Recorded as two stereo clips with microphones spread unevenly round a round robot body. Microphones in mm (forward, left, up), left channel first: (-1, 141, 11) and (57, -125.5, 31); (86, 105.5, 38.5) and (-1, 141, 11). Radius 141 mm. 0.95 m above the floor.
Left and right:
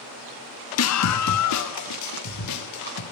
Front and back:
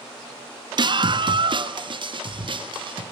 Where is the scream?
135° left, 1.1 m; by 3.0 s 130° left, 4 m.